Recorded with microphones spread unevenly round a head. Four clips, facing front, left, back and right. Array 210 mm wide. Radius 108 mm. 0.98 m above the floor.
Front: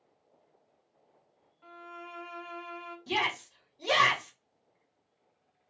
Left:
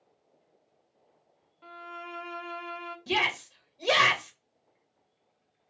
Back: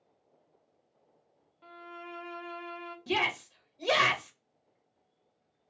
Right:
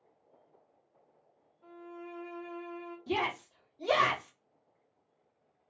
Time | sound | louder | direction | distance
1.6 | a violin | left 4 dB, even | 95° left | 0.6 m
3.1 | a shout | left 2 dB, back 1 dB | 110° left | 1.6 m